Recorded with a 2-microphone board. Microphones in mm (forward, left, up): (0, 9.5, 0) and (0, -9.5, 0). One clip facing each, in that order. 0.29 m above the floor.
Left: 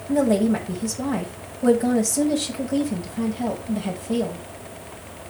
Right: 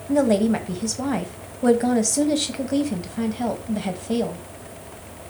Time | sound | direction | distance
0.1 | a woman speaking | 30° right (ahead or behind) | 1.4 m